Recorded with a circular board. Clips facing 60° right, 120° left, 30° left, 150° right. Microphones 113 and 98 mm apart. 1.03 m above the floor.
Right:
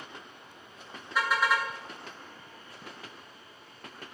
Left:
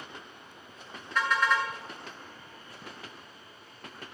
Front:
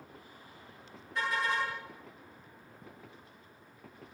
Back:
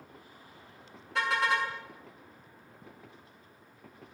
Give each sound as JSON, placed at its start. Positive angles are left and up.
{"t": 1.1, "sound": "a car horn", "azimuth_deg": -145, "distance_m": 6.5}